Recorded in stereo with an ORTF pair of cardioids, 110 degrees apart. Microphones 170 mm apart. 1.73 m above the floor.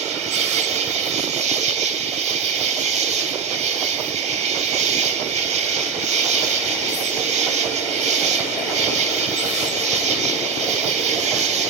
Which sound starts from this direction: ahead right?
An insect, at 0.0 s.